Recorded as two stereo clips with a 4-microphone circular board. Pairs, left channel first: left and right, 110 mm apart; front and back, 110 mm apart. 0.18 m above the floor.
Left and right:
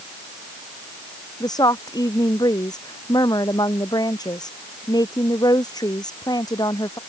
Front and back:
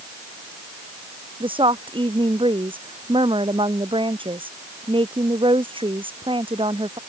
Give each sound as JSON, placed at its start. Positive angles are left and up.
{"t": 1.4, "sound": "a woman speaking", "azimuth_deg": 140}